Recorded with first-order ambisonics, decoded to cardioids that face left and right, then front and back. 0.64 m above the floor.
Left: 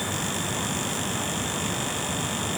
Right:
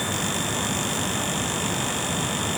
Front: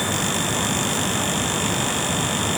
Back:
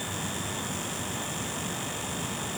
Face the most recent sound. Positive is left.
No sound to turn to.